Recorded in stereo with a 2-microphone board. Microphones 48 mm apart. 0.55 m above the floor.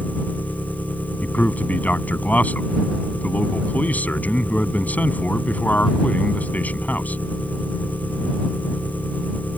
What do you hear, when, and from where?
0.0 s an engine running: 35° left (ahead or behind)
1.2 s a man speaking: 35° left (ahead or behind)